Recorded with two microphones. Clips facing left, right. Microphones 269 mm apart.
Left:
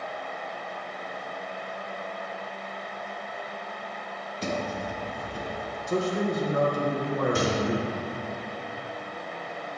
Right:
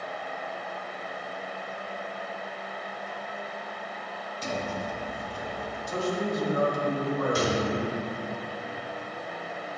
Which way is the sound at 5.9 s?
70° left (ahead or behind).